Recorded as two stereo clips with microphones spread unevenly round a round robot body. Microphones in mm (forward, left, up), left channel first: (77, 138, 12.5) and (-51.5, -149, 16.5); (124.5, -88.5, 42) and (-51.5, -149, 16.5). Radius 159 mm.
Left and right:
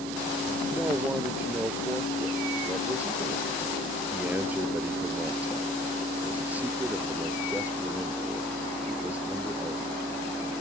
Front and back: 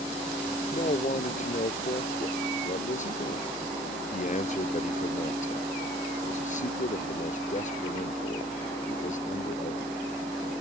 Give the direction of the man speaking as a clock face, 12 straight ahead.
1 o'clock.